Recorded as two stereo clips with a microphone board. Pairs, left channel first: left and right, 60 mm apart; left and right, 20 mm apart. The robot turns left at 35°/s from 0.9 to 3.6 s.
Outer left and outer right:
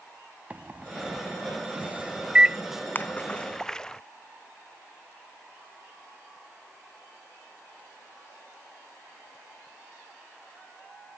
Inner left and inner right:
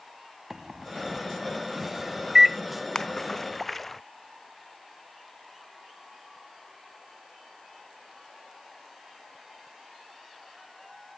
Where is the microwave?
25° right (ahead or behind); by 2.6 s 15° right (ahead or behind).